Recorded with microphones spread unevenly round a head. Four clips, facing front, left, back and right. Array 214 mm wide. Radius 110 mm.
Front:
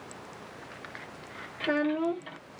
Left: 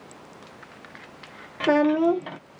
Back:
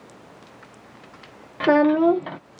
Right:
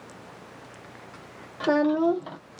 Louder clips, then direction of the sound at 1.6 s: Left 2 dB, back 11 dB; 170° left.